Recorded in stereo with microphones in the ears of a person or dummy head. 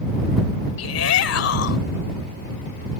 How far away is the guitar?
No guitar in this recording.